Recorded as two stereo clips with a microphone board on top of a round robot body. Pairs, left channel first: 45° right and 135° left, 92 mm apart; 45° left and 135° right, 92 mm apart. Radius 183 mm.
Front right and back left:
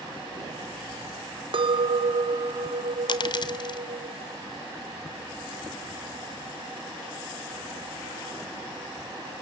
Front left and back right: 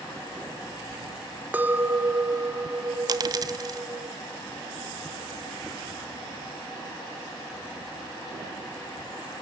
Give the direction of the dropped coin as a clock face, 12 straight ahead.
3 o'clock.